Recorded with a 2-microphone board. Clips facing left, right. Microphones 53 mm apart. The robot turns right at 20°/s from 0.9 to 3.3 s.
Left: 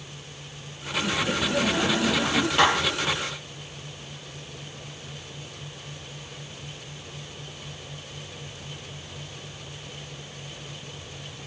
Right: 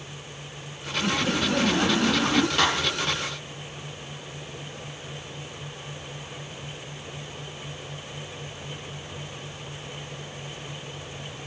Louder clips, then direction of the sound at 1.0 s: Right 1 dB; 35° right (ahead or behind).